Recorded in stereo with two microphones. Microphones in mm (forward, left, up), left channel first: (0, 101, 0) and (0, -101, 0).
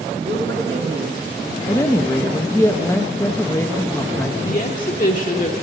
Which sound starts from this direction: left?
A woman speaking, at 4.4 s.